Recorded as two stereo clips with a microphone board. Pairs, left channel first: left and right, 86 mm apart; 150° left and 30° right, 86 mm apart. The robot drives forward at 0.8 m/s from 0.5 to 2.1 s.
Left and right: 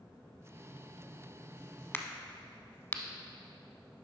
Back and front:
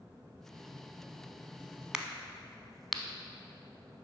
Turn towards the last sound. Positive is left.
turn(degrees=65)